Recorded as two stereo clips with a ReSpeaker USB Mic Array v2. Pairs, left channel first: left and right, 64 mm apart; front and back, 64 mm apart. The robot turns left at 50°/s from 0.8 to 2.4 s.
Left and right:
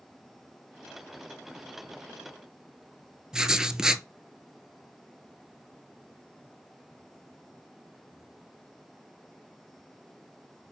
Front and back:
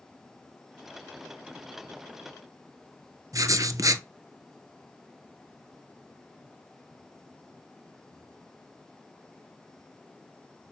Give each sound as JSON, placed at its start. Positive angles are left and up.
{"t": 3.3, "sound": "writing", "azimuth_deg": -170, "distance_m": 0.6}